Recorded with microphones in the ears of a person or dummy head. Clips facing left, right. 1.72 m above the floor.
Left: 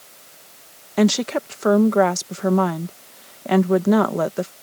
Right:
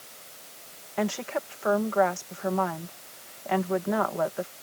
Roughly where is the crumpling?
I don't hear crumpling.